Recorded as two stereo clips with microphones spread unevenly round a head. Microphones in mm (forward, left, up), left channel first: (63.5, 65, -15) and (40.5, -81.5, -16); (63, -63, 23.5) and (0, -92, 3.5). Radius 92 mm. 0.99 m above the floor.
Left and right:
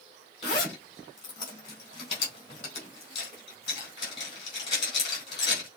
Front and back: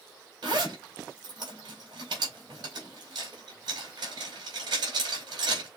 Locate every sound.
0.4 s a zipper: 145° left, 3.5 m